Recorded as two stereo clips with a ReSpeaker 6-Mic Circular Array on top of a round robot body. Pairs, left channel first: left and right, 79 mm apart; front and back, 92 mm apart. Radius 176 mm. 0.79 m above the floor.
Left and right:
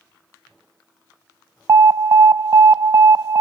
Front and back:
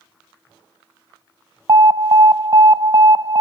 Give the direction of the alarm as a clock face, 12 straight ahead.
5 o'clock.